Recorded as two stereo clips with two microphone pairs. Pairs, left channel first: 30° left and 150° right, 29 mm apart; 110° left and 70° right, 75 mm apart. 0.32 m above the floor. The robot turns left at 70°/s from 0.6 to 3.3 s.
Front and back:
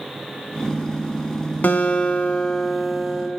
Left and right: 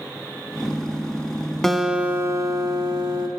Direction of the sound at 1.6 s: 30° left.